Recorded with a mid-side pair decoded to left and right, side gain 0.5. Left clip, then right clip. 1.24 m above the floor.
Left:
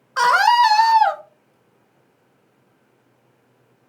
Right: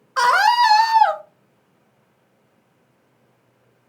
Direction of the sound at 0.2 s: 5° right.